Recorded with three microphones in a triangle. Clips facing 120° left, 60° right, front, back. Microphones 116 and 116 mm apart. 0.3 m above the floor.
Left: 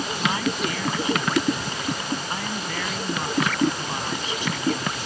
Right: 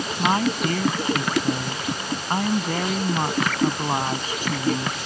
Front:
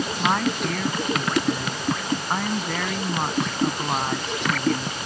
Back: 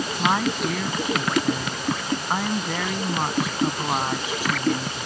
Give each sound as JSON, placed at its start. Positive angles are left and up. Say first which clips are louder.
{"t": 0.2, "sound": "a woman speaking", "louder": "right 5 dB, back 1 dB", "azimuth_deg": -95}